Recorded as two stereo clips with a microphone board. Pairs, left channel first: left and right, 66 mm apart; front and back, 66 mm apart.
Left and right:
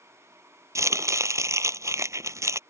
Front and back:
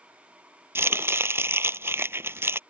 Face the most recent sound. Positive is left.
turn(degrees=-125)